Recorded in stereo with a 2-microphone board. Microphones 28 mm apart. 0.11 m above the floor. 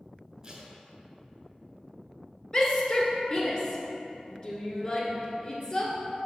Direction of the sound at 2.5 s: 35° left (ahead or behind).